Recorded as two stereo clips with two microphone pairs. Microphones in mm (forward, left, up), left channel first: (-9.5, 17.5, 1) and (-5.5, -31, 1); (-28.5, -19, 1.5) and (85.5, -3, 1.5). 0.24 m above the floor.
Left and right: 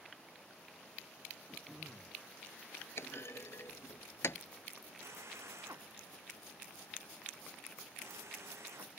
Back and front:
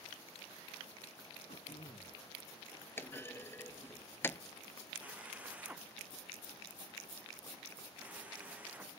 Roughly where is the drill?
Right.